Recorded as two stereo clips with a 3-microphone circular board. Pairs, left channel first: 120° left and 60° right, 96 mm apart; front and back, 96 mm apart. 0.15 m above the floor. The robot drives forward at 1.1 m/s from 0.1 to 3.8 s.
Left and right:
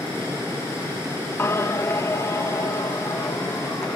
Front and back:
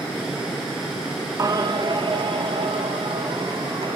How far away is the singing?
About 0.5 m.